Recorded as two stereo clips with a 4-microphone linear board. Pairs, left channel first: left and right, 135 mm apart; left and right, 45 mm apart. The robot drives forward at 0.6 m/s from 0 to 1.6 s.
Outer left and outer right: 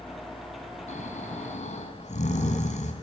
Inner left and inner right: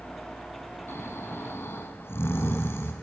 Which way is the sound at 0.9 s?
65° left (ahead or behind).